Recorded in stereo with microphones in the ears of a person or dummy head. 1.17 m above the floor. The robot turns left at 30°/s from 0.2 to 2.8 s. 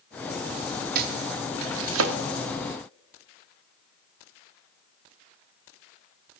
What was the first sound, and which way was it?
Chopping, 55° right (ahead or behind).